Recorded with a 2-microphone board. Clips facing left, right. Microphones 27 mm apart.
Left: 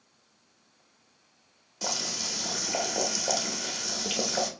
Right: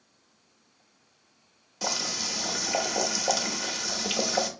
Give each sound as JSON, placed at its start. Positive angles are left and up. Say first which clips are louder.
{"t": 1.8, "sound": "boiling", "louder": "right 2 dB", "side_deg": -10, "distance_m": 0.8}